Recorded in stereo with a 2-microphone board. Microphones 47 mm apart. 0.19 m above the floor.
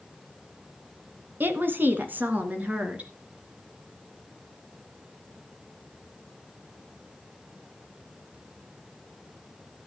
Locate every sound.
1.4 s a woman speaking: 45° right (ahead or behind), 1.6 m; by 3.1 s 30° right (ahead or behind), 3 m